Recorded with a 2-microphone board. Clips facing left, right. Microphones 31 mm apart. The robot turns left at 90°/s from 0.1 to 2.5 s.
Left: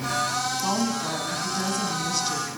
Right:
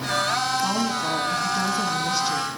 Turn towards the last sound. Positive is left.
turn(degrees=-5)  # may be behind; listen again after turning